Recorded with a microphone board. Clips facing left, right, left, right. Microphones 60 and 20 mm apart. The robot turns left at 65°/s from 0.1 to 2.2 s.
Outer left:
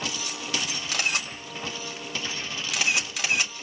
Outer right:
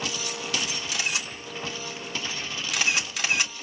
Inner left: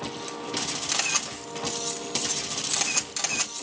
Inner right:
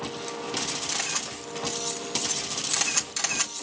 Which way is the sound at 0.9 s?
65° left (ahead or behind).